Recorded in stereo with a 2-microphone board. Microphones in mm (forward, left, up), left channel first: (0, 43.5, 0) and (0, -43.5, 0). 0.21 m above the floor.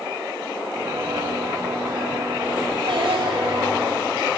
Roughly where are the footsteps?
Right.